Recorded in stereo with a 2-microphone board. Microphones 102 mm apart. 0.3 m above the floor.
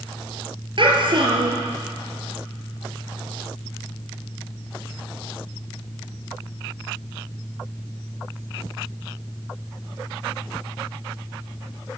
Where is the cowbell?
No cowbell in this recording.